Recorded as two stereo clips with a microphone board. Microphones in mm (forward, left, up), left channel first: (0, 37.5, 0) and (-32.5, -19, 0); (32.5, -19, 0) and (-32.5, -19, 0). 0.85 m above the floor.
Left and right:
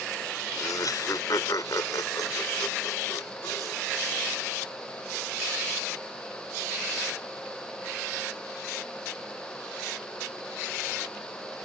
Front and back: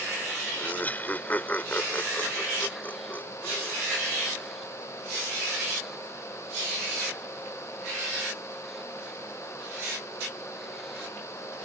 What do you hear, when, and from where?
0.6 s laughter: 60° left